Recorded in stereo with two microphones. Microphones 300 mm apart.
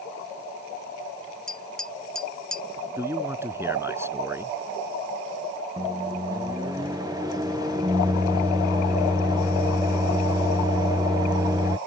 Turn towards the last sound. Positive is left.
turn(degrees=-10)  # may be behind; listen again after turning